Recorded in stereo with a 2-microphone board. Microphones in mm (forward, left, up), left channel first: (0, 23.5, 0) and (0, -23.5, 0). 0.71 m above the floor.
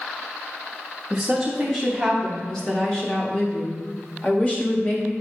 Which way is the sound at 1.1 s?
5° right (ahead or behind).